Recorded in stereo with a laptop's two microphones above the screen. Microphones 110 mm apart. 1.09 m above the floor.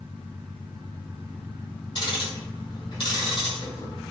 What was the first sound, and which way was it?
Ticking, 45° left (ahead or behind).